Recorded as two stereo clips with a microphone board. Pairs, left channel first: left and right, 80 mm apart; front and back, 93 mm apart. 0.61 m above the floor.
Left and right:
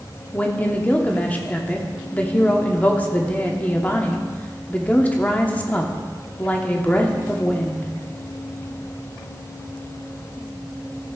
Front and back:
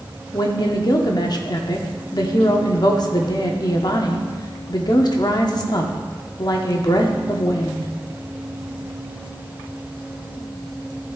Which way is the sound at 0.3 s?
20° left.